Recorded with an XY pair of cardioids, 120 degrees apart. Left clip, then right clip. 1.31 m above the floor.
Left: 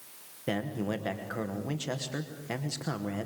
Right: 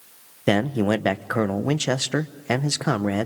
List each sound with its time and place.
0.5 s a man speaking: 65° right, 1.0 m